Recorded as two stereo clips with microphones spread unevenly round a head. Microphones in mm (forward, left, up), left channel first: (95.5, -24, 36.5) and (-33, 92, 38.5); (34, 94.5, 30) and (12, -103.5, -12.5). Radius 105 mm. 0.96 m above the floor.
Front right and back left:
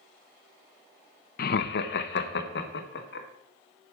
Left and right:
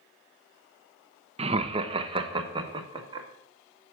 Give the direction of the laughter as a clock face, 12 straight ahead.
2 o'clock.